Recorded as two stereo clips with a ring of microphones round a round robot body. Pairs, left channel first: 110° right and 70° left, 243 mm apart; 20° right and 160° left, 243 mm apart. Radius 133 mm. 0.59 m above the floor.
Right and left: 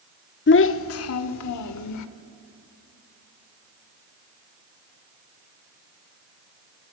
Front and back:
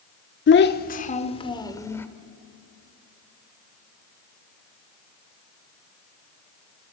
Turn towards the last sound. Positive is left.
turn(degrees=-105)